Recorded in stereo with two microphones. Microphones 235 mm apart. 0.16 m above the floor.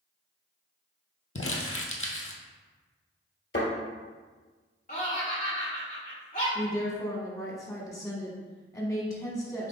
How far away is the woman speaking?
About 1.0 m.